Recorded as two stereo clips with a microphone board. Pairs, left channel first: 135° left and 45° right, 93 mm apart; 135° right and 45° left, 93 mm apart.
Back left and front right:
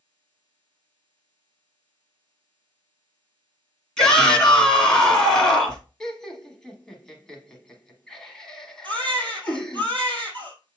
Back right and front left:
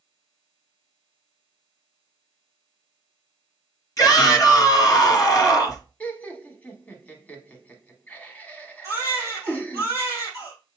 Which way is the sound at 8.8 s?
15° right.